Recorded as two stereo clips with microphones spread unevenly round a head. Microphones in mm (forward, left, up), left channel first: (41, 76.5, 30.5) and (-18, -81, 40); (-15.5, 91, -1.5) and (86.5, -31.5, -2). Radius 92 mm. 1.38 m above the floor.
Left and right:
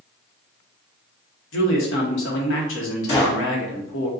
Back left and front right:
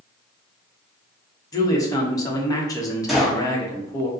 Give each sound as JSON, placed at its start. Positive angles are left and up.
{"t": 1.5, "sound": "a man speaking", "azimuth_deg": 60, "distance_m": 1.1}
{"t": 3.1, "sound": "a gunshot", "azimuth_deg": 40, "distance_m": 1.5}